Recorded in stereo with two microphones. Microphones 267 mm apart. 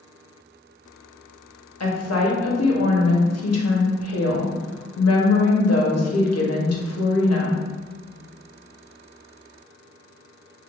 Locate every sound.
1.8 s a woman speaking: 65° left (ahead or behind), 0.7 m